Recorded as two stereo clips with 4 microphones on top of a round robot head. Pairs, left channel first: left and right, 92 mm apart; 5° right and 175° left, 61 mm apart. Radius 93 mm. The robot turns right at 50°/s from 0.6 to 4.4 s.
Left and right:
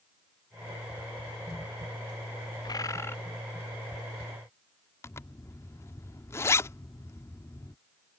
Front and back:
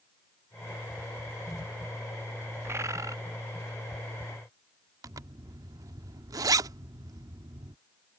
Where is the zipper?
150° left.